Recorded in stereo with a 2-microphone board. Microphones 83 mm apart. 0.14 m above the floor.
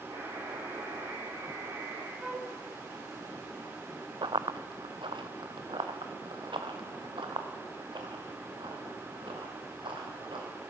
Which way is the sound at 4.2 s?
80° right.